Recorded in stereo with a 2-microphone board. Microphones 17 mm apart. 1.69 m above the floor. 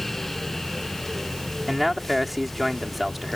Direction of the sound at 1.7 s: Centre (ahead or behind).